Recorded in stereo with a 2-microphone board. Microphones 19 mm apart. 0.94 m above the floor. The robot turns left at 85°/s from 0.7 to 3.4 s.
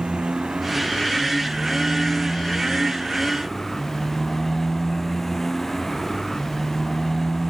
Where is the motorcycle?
120° right; by 7.5 s 10° left.